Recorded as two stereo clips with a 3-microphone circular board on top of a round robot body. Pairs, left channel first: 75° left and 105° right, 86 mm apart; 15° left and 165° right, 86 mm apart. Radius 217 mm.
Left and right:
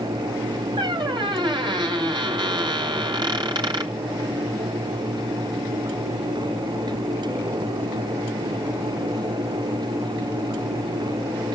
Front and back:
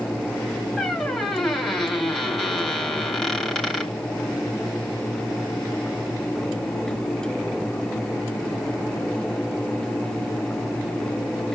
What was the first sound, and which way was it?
A squeak, 65° right.